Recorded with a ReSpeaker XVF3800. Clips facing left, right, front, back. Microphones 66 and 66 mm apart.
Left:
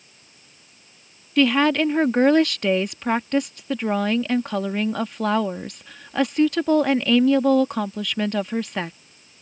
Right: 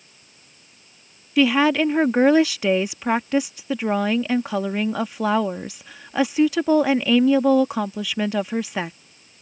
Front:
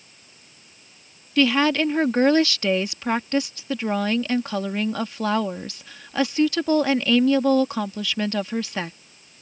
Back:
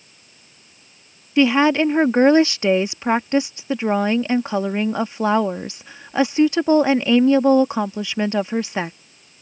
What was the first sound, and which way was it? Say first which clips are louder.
A woman speaking: right 1 dB, back 4 dB; 160° right.